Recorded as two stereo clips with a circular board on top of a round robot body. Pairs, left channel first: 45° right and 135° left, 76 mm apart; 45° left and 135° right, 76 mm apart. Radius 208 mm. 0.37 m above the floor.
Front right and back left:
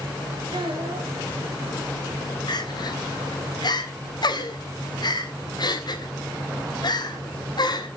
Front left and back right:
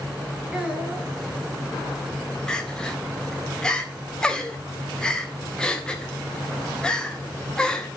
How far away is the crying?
About 1.9 m.